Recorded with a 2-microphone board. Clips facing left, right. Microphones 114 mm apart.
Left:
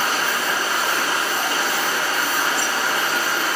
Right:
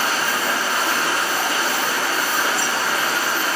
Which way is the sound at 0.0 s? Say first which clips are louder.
Right 1 dB; 75° right (ahead or behind).